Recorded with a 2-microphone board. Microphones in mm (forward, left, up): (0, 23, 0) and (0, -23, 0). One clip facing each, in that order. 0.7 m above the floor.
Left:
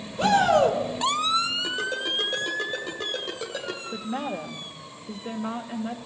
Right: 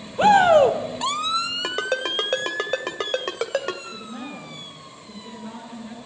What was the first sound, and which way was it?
A shout, 35° right (ahead or behind).